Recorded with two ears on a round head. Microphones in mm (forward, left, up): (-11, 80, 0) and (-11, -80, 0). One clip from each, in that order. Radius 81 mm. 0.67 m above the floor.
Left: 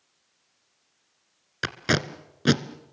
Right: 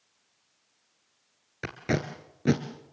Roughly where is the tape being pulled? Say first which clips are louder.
Left 5 dB; left.